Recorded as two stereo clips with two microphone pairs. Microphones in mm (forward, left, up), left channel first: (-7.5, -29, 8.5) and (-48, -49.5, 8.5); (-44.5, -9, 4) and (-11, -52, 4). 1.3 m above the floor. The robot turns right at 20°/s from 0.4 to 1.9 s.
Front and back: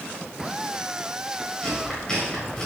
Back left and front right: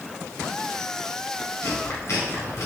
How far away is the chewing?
About 3.5 m.